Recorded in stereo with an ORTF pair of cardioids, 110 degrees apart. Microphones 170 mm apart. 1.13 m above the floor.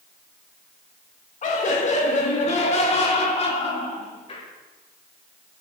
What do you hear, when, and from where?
1.4 s laughter: 45° left, 4.5 m; by 4.5 s 35° left, 6.5 m